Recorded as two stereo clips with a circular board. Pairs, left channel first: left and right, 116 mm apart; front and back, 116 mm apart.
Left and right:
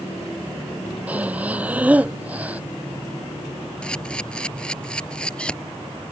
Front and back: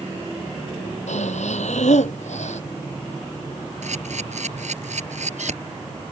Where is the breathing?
10° right.